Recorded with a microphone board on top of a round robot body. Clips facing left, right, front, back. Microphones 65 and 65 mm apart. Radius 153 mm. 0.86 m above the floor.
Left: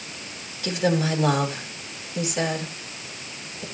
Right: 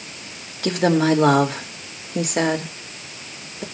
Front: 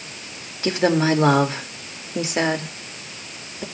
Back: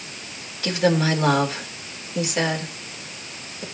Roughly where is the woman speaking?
Ahead right.